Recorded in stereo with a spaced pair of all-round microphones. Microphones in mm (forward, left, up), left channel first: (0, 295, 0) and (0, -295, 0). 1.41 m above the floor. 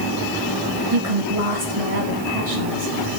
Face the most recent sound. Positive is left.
turn(degrees=-70)  # may be behind; listen again after turning